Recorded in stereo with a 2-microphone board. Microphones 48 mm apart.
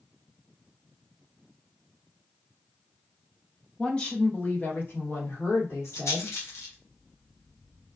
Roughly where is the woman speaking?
Centre.